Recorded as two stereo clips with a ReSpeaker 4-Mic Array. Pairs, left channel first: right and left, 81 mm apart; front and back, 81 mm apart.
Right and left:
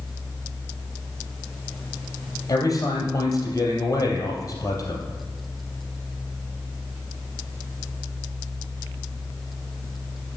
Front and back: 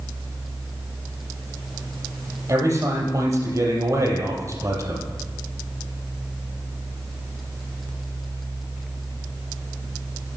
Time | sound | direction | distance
2.5 | a man speaking | 135° right | 3 m